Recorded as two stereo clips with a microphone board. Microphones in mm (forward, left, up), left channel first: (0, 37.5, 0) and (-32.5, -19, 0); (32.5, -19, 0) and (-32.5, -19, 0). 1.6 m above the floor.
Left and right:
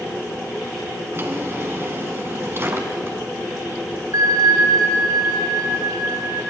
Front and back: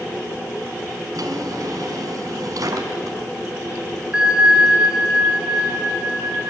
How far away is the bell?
About 4.5 m.